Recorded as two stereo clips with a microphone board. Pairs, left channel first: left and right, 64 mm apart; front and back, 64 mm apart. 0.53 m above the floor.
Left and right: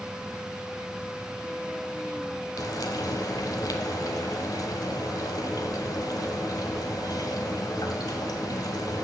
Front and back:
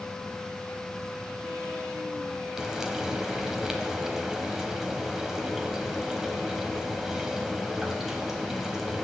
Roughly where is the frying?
Left.